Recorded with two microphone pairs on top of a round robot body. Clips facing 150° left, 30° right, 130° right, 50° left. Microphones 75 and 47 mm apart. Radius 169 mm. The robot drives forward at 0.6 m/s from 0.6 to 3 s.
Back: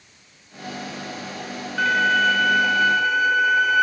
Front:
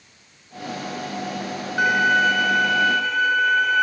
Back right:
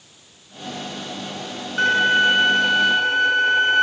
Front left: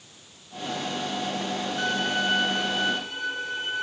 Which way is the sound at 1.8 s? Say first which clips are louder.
Front 1 dB, back right 12 dB; 100° right.